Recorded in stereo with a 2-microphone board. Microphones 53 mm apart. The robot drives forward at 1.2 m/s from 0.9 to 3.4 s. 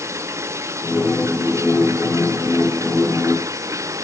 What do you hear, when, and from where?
0.0 s running water: 60° right (ahead or behind); by 4.0 s 70° right (ahead or behind)